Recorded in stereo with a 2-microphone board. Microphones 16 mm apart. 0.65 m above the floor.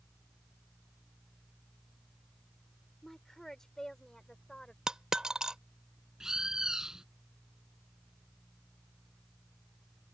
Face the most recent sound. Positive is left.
turn(degrees=-55)  # may be behind; listen again after turning